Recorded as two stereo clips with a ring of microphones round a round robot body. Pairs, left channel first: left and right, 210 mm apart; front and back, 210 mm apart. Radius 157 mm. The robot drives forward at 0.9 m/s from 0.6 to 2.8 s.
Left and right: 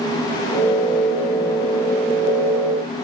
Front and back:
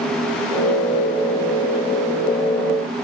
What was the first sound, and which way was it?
Only background noise.